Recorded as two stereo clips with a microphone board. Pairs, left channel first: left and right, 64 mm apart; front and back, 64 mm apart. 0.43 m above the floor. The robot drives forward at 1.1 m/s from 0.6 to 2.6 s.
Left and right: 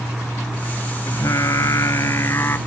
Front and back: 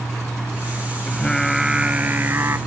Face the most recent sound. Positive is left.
turn(degrees=140)